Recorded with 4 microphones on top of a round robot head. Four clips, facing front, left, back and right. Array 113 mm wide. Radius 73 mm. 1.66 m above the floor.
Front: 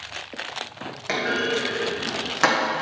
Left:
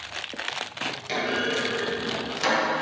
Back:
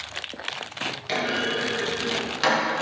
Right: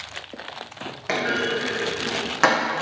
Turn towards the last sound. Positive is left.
turn(degrees=-60)